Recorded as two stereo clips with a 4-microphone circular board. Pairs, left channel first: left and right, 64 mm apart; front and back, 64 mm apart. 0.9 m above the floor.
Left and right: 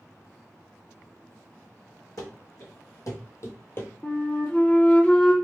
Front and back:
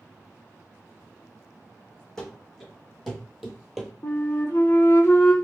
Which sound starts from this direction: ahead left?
A flute, at 4.0 s.